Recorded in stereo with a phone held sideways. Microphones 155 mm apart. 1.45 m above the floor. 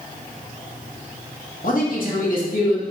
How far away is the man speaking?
About 0.9 m.